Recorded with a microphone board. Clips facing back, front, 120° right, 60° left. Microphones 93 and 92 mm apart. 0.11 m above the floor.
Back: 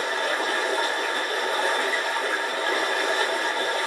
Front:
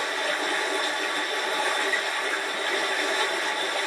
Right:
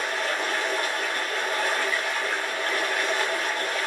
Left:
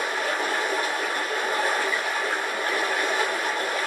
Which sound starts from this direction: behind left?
Running water, at 0.0 s.